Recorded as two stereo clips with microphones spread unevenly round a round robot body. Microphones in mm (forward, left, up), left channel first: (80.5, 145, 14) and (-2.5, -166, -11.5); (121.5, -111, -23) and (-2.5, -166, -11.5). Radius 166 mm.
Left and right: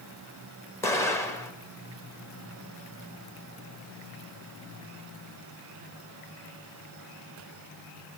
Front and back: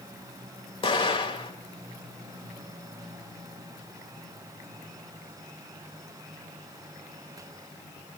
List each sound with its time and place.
0.8 s an explosion: 10° right, 1.6 m